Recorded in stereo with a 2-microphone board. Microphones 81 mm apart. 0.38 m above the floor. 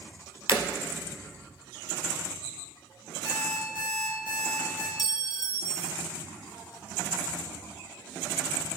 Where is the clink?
55° left (ahead or behind), 0.7 m.